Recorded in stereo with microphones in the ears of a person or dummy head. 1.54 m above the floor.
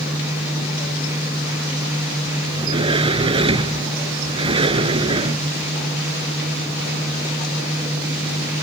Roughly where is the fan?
Centre.